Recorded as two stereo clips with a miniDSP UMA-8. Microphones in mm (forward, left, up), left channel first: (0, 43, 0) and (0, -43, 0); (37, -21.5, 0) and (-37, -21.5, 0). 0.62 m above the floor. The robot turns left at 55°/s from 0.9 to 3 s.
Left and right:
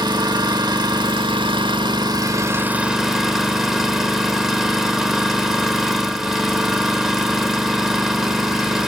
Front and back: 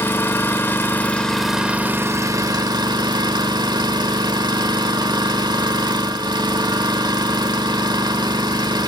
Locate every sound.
0.0 s an engine running: 60° right, 1.4 m; by 8.9 s 175° right, 1.4 m